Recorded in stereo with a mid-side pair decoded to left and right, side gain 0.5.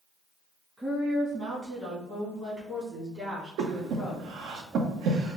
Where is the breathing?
70° right, 0.7 m.